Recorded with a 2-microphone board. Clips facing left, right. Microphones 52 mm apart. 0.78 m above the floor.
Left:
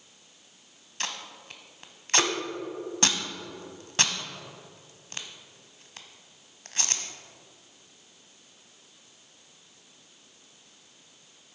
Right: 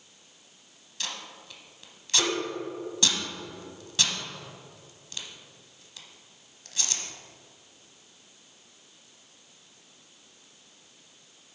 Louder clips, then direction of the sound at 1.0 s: Left 2 dB; 45° left (ahead or behind).